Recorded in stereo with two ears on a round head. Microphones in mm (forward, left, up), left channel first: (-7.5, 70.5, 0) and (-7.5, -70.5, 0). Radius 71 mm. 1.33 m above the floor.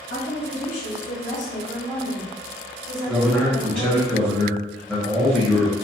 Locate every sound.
0.1 s a woman speaking: 80° left, 1.4 m; by 4.1 s 55° right (ahead or behind), 2 m
3.1 s a man speaking: 5° right (ahead or behind), 0.9 m